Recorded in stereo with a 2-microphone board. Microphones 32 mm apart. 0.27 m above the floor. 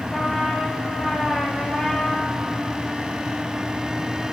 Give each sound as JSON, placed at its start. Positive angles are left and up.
{"t": 0.1, "sound": "a trumpet", "side_deg": 15, "distance_m": 6.0}